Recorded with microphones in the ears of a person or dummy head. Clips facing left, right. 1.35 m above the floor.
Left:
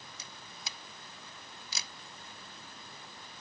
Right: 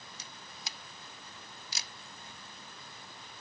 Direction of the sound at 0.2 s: 60° left (ahead or behind).